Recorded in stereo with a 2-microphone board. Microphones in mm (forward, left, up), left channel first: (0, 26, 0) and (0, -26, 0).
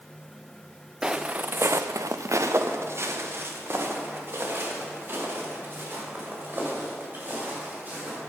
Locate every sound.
1.0 s footsteps: 15° right (ahead or behind), 0.9 m; by 8.2 s 35° right (ahead or behind), 6.5 m